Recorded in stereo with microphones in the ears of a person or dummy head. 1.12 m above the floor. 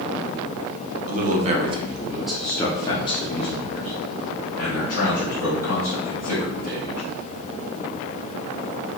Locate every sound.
1.1 s a man speaking: 40° right (ahead or behind), 0.9 m; by 7.1 s 55° left (ahead or behind), 2.5 m